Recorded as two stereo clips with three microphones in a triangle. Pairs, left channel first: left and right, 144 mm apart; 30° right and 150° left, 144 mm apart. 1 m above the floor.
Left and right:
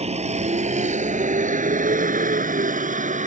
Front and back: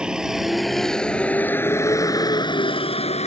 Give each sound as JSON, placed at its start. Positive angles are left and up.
{"t": 0.0, "sound": "a vehicle", "azimuth_deg": -125}